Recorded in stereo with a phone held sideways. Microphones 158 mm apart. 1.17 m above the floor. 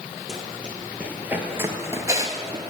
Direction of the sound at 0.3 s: 5° right (ahead or behind).